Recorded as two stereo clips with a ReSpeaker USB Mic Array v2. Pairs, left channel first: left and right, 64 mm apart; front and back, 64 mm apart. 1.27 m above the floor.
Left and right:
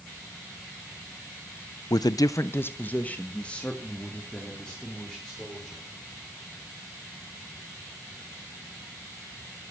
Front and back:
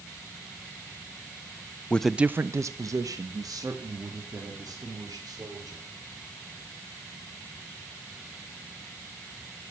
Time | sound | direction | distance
1.9 | a man speaking | 70° left | 0.5 m